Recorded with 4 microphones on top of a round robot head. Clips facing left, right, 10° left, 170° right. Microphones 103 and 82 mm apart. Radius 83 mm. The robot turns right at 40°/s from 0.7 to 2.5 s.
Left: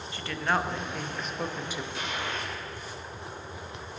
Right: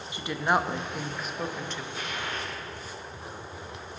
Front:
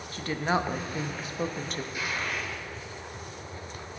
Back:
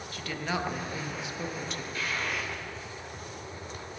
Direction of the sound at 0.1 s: 25° right.